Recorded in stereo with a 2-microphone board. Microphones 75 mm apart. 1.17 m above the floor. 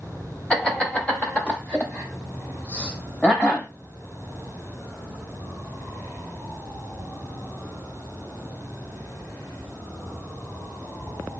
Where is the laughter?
15° left (ahead or behind), 1.5 m.